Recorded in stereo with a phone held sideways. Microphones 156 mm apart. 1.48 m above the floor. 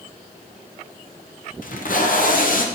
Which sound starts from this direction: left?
Tape being pulled, at 1.6 s.